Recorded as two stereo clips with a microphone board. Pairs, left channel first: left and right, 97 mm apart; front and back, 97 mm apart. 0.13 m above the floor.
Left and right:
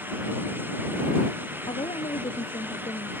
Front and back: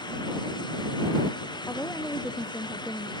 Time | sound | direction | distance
1.7 | a woman speaking | 65° left | ?